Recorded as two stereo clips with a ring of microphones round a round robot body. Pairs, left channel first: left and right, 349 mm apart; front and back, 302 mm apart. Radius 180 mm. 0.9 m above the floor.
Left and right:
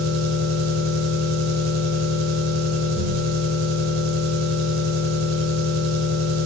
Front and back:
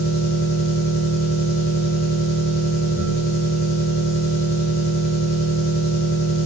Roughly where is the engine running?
Ahead right.